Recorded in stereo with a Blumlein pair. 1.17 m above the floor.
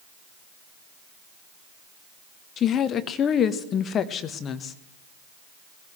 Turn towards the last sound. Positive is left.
turn(degrees=25)